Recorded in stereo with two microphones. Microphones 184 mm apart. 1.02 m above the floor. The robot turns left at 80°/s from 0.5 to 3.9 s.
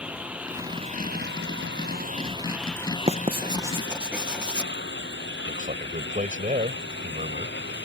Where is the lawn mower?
5° right; by 7.8 s 80° left.